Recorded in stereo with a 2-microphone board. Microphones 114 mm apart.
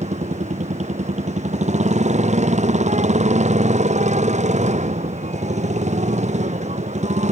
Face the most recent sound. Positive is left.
turn(degrees=-85)